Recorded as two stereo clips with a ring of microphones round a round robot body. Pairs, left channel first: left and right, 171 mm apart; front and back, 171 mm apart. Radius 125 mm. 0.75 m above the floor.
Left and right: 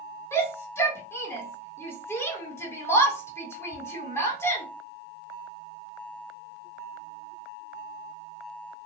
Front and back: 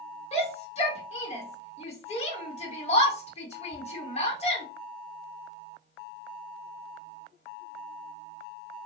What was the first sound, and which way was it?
A shout, 25° left.